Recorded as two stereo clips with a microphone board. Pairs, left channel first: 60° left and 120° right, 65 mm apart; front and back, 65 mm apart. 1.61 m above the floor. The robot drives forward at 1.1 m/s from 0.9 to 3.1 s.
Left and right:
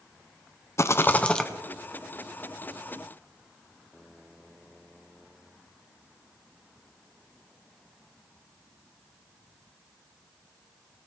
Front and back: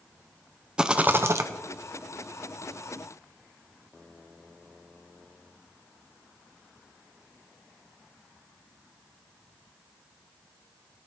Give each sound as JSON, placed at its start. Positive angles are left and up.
{"t": 0.8, "sound": "a rattle", "azimuth_deg": 105, "distance_m": 0.7}